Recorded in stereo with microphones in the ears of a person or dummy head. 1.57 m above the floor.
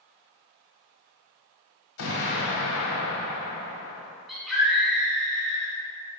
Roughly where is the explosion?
Left.